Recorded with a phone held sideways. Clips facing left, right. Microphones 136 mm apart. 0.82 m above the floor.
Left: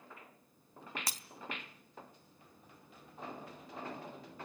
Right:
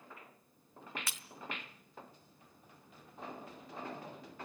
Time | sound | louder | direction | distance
1.1 | breaking glass | left 3 dB | 35° left (ahead or behind) | 1.0 m